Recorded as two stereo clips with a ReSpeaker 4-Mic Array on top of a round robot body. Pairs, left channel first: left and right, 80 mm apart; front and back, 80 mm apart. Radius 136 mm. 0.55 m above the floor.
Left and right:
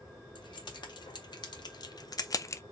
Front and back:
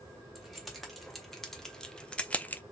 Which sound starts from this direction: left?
Keys jangling, at 0.3 s.